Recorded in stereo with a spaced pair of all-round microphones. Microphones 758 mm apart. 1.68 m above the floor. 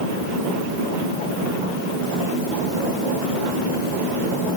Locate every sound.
Only background noise.